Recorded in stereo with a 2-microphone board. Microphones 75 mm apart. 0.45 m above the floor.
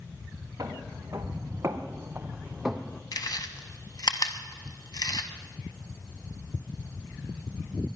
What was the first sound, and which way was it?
Footsteps, 45° right (ahead or behind).